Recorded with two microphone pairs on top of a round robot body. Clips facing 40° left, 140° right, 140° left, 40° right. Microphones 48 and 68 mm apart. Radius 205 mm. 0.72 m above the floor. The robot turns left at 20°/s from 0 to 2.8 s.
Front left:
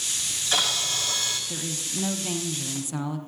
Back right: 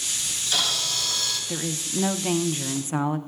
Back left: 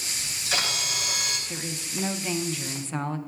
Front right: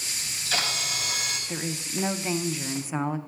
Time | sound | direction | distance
0.2 | a camera shutter | 80° left | 1.5 m
1.5 | a woman speaking | 85° right | 0.6 m